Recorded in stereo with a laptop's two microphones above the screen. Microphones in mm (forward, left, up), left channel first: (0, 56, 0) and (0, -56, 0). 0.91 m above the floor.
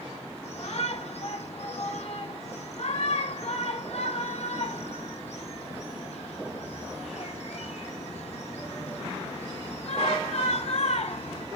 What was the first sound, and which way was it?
A shout, 75° left (ahead or behind).